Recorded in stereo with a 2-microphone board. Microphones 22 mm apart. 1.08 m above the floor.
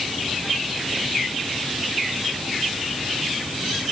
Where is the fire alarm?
I don't hear a fire alarm.